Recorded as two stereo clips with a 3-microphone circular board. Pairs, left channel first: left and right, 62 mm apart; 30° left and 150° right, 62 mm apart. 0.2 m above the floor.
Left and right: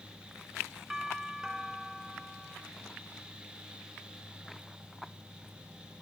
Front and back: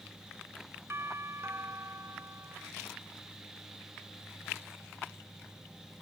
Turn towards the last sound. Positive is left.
turn(degrees=-175)